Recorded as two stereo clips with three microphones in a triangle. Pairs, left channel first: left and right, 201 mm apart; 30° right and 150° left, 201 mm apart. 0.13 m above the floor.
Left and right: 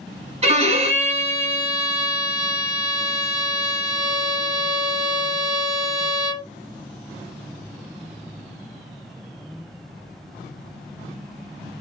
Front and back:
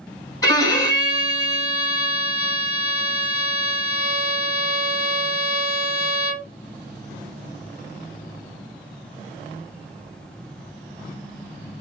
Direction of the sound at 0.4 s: 85° right.